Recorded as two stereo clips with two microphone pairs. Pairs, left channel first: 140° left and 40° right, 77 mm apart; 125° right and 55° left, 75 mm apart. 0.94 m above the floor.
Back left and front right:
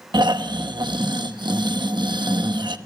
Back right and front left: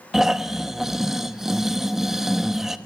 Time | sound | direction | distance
0.1 | snoring | 30° right | 0.9 m